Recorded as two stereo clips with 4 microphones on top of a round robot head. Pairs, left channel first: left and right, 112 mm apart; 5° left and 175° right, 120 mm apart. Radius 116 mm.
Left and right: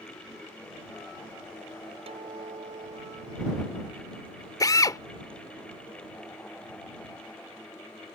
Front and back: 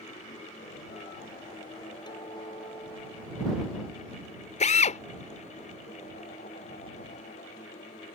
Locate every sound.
2.1 s a guitar: 55° right
4.6 s a drill: 30° left